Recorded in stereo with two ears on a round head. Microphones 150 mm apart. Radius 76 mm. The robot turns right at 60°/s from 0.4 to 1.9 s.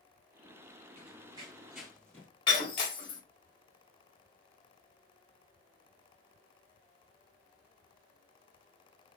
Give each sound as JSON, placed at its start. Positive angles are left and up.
{"t": 1.0, "sound": "running footsteps", "side_deg": -35, "distance_m": 1.9}
{"t": 2.5, "sound": "breaking glass", "side_deg": 30, "distance_m": 1.3}